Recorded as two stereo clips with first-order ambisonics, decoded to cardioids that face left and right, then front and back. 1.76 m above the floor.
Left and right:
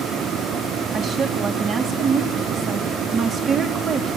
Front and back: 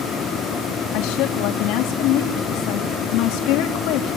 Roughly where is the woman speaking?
Ahead right.